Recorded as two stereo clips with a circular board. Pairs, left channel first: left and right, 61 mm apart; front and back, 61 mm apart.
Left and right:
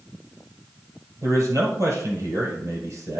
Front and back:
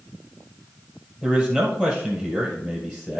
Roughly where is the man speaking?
Right.